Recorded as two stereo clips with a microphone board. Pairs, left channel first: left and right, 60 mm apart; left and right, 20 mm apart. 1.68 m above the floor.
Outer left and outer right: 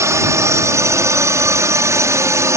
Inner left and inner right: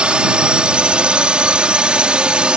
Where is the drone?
55° right (ahead or behind).